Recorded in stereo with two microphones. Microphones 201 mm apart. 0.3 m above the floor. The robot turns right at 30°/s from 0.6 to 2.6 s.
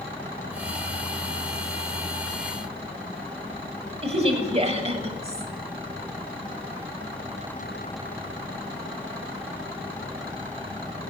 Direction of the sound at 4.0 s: 30° right (ahead or behind).